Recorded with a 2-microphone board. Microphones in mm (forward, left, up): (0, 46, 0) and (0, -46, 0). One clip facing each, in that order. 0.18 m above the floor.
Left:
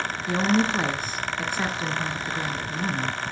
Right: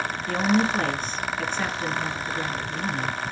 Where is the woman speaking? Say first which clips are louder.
Even; 15° left (ahead or behind), 1.7 m.